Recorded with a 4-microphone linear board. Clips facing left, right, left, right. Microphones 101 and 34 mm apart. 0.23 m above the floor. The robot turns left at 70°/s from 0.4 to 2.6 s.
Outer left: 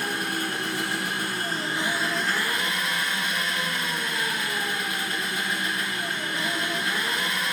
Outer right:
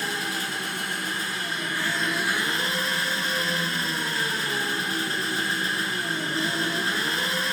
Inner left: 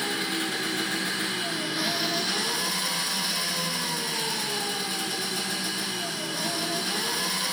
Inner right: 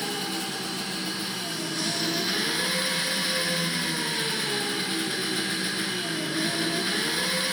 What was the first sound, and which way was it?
An engine running, 120° left.